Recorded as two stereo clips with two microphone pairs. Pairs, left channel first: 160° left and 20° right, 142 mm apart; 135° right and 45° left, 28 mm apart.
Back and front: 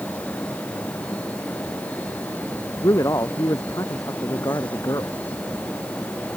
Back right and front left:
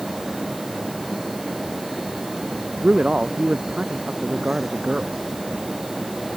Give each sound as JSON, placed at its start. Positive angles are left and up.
{"t": 2.8, "sound": "a man speaking", "azimuth_deg": 95}